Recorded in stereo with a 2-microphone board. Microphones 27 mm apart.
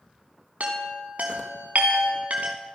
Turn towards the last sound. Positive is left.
turn(degrees=-80)